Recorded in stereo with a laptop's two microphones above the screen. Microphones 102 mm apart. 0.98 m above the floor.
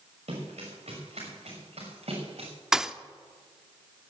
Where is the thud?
5° right (ahead or behind), 0.7 m.